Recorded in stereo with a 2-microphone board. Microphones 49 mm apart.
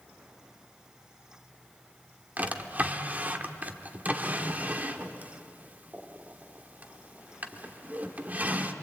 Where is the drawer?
30° right (ahead or behind), 1.3 m.